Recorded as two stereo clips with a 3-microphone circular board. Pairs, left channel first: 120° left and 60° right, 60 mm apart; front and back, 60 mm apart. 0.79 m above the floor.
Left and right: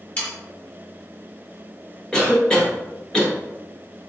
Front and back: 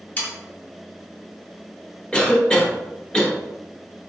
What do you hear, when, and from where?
0.2 s sawing: 60° left, 1.6 m
2.1 s a cough: 60° left, 1.1 m